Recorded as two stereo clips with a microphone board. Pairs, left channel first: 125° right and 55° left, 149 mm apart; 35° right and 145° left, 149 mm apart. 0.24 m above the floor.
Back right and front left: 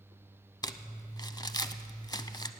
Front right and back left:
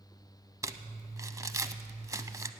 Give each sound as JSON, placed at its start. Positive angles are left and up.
{"t": 0.6, "sound": "crumpling", "azimuth_deg": -165, "distance_m": 0.5}